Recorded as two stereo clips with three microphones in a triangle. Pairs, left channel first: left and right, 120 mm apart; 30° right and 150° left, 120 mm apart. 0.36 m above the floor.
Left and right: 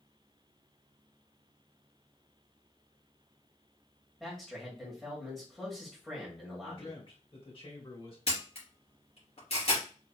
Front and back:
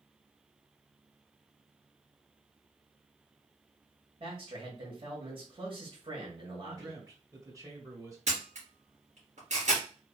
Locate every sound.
4.2 s a man speaking: 175° left, 2 m
6.6 s a man speaking: 100° left, 2.0 m
8.3 s a camera shutter: 125° left, 3 m